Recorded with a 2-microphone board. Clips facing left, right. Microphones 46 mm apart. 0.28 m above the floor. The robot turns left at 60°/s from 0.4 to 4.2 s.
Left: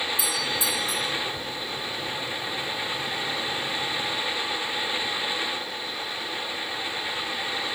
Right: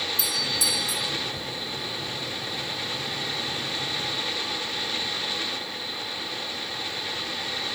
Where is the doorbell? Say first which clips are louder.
Left 1 dB; 160° left, 3 m; by 1.1 s 115° left, 3 m.